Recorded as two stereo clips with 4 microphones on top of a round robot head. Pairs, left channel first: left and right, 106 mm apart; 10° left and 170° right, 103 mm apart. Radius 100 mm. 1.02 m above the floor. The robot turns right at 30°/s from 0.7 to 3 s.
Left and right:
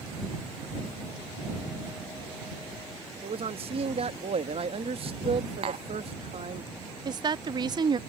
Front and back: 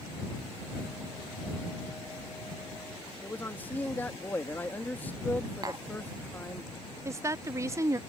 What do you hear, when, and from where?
3.2 s a man speaking: 65° right
5.6 s tapping: 115° right
7.0 s a woman speaking: 120° right